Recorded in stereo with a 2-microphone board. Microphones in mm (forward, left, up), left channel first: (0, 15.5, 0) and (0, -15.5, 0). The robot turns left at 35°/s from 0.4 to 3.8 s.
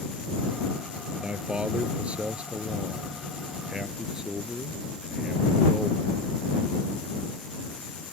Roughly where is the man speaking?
Ahead right.